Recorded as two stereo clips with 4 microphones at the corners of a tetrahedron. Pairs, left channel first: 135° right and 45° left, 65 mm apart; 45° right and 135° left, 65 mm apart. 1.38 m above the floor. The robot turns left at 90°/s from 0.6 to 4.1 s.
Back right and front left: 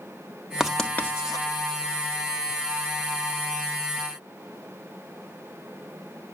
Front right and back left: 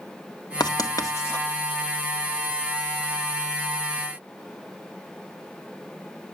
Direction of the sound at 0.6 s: 35° right.